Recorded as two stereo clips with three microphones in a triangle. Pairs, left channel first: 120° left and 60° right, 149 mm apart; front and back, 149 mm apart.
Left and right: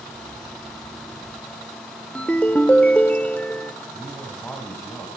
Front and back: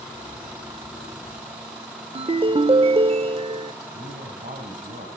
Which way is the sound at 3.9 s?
160° right.